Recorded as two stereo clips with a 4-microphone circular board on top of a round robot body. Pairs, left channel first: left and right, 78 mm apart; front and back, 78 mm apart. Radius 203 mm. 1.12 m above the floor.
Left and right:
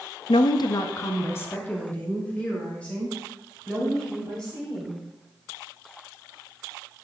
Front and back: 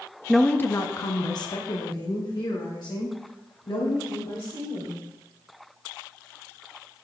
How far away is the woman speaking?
About 0.6 m.